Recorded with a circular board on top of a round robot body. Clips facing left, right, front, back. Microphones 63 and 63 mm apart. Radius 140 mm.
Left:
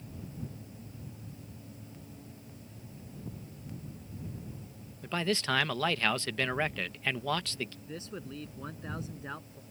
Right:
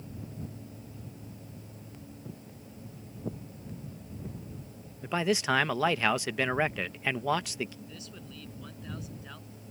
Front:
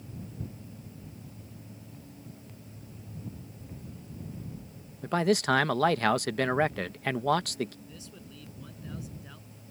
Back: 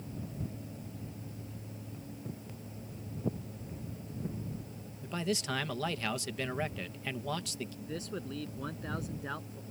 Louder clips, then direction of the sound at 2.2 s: Right 4 dB, back 4 dB; 130° right.